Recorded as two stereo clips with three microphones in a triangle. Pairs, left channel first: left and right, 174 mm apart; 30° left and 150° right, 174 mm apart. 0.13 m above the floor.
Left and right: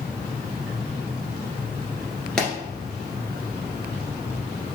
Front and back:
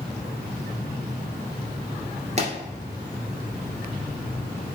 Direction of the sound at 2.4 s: 175° left.